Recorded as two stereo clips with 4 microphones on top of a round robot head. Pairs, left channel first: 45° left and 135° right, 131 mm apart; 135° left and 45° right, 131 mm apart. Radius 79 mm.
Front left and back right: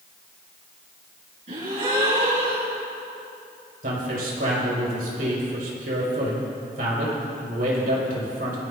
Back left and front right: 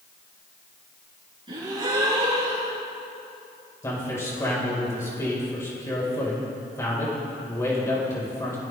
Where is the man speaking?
155° right, 6 m.